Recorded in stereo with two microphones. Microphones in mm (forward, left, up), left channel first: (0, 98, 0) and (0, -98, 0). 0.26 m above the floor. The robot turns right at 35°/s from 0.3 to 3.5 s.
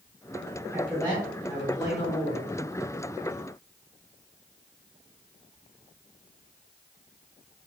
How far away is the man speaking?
About 1.9 m.